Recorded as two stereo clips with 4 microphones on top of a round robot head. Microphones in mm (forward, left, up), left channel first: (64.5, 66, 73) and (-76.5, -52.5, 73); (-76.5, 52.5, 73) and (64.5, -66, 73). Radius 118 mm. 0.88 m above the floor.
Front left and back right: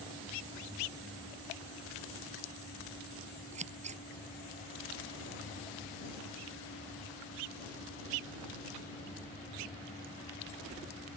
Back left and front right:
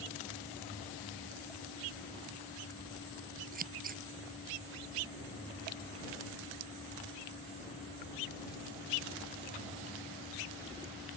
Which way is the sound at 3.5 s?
85° right.